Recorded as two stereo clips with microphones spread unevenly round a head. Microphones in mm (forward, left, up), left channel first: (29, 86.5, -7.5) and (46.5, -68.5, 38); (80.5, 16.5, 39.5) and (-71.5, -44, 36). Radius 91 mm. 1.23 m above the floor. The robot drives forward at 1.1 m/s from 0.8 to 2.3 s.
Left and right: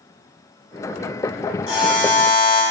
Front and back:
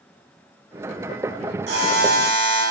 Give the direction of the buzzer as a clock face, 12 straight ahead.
6 o'clock.